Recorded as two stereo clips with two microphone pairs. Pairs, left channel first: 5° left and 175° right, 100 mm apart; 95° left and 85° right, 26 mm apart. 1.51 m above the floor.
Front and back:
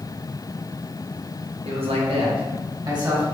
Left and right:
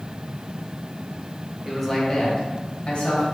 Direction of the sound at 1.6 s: 165° right.